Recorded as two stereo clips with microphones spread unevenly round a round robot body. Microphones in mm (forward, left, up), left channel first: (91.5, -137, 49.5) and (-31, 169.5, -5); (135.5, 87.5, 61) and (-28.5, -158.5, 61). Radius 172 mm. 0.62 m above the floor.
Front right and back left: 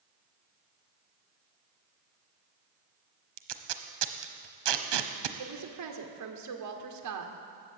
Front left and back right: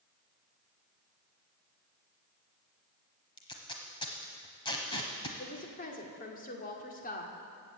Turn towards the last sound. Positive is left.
turn(degrees=115)